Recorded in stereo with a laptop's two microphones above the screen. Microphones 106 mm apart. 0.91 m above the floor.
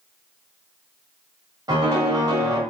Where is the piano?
40° right (ahead or behind), 1.7 m.